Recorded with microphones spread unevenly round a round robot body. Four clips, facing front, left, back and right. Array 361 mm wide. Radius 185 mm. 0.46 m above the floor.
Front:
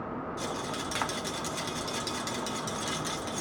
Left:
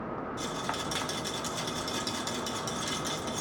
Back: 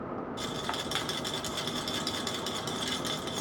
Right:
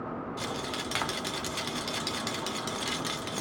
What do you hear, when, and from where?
0.4 s a rattle: 130° right, 0.8 m